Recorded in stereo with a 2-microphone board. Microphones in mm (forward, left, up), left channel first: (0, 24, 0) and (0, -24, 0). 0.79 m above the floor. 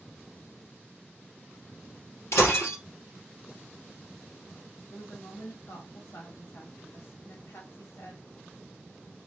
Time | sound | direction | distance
2.3 | breaking glass | 65° left (ahead or behind) | 2.5 m
4.9 | a woman speaking | 65° left (ahead or behind) | 1.7 m